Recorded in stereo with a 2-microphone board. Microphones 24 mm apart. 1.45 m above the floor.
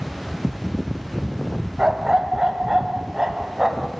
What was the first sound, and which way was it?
A dog barking, 30° right (ahead or behind).